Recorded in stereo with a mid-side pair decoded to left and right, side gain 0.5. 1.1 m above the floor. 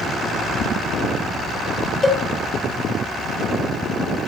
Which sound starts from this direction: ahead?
A cowbell, at 2.0 s.